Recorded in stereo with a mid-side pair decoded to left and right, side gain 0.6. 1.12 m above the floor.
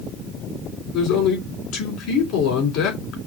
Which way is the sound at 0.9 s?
65° left.